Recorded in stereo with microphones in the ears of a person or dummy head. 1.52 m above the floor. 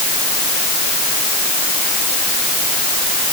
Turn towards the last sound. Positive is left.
No sound to turn to.